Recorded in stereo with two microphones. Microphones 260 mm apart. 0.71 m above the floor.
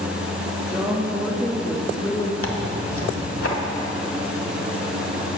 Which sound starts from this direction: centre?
A woman speaking, at 0.7 s.